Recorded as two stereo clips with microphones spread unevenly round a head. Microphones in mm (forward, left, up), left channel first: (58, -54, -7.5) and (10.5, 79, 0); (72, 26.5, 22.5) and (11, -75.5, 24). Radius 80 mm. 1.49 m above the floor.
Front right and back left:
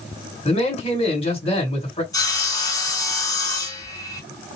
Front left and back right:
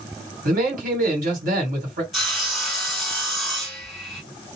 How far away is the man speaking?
About 1.8 m.